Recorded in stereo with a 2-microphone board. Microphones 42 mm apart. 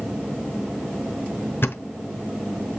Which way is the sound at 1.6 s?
55° left (ahead or behind).